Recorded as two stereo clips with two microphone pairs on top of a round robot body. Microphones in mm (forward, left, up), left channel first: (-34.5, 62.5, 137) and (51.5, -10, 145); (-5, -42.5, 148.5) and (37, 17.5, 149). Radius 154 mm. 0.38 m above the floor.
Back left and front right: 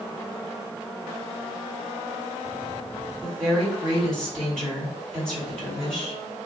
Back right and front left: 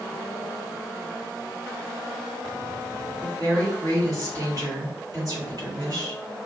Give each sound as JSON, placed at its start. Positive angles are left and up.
{"t": 3.2, "sound": "a woman speaking", "azimuth_deg": 60, "distance_m": 1.8}